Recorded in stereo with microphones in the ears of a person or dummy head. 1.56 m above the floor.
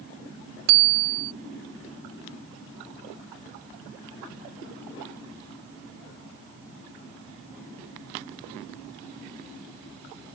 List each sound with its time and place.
0.7 s a bicycle bell: 60° right (ahead or behind)